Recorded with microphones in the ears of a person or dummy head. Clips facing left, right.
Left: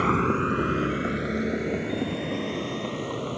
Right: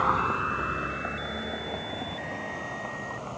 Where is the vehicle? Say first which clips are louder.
Left 6 dB; 30° left (ahead or behind); by 3.4 s 45° left (ahead or behind).